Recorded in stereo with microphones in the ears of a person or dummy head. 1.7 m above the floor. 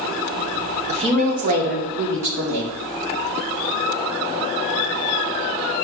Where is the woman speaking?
30° right (ahead or behind), 1.2 m; by 2.7 s 75° right (ahead or behind), 1.6 m.